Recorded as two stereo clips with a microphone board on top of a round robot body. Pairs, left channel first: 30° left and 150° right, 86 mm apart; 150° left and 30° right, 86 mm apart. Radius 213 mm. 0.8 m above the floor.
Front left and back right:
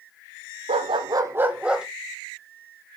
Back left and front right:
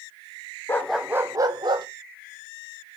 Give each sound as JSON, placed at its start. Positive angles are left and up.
{"t": 0.7, "sound": "a dog barking", "azimuth_deg": -145, "distance_m": 0.7}